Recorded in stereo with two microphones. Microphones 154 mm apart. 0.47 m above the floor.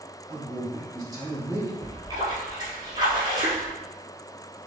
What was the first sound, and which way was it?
A man speaking, 20° right (ahead or behind).